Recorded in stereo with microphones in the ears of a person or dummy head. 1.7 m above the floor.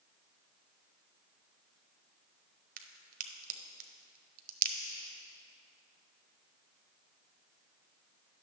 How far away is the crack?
About 0.7 m.